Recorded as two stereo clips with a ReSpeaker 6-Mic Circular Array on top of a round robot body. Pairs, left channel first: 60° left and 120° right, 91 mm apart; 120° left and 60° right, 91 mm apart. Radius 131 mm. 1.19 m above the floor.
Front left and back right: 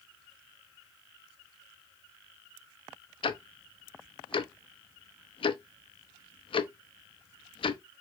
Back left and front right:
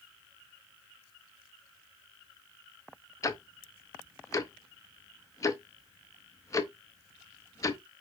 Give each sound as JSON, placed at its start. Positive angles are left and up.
{"t": 3.2, "sound": "ticking", "azimuth_deg": 70, "distance_m": 0.6}